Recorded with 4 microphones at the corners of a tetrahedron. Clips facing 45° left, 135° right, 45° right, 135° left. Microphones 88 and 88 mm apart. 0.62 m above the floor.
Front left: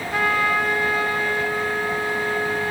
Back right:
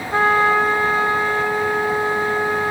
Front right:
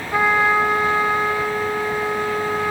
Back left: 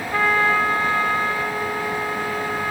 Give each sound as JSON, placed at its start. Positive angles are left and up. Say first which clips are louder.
{"t": 0.1, "sound": "a trumpet", "louder": "back right 6 dB, front right 2 dB", "azimuth_deg": -105, "distance_m": 0.7}